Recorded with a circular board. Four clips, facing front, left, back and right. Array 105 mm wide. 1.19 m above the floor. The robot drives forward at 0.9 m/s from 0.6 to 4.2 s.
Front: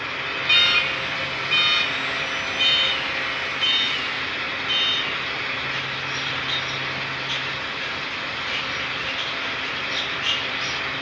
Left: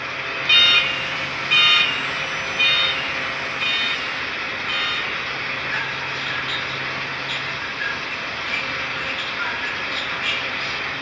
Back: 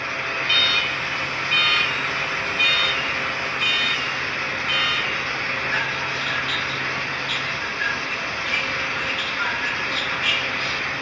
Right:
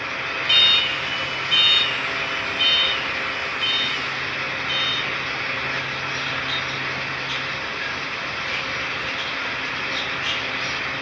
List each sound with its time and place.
0.5 s an alarm: 65° left; by 10.9 s 150° left